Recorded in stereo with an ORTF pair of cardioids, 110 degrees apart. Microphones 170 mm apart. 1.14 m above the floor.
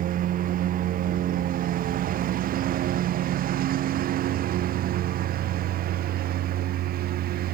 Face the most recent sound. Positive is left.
turn(degrees=-70)